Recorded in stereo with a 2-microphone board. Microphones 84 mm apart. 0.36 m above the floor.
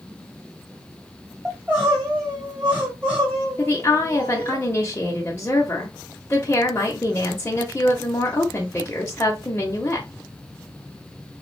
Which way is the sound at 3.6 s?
30° left (ahead or behind).